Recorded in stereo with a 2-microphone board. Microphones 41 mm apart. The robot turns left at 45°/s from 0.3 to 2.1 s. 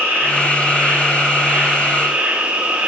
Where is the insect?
60° right, 3 m; by 2.9 s 140° right, 3 m.